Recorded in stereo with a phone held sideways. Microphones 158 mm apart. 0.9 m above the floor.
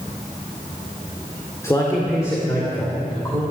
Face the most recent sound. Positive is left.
turn(degrees=20)  # may be behind; listen again after turning